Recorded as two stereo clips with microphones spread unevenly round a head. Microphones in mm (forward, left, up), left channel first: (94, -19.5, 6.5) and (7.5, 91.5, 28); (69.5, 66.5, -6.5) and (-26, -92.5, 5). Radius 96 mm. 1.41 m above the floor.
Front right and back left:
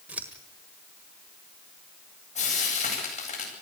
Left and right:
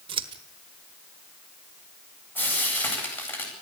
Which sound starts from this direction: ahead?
Frying, at 2.4 s.